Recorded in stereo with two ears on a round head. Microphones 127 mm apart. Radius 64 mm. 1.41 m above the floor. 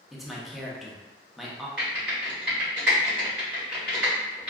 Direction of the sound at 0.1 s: Centre (ahead or behind).